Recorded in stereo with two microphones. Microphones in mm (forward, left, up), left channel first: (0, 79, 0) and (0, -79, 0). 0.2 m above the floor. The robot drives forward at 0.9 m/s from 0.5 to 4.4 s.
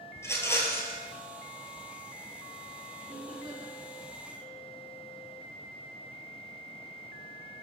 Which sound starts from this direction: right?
Laughter, at 3.0 s.